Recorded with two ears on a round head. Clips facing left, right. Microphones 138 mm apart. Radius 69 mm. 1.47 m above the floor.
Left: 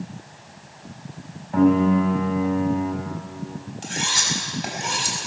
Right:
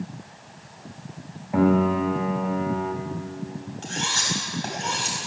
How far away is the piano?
About 3.5 m.